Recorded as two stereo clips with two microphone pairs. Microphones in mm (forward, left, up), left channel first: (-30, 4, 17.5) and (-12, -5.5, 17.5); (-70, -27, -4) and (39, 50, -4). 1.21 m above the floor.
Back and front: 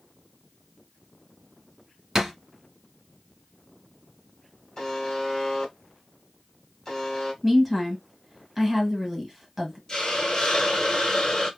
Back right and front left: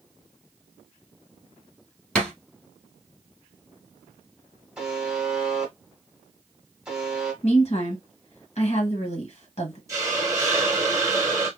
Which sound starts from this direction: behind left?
A buzzer, at 4.8 s.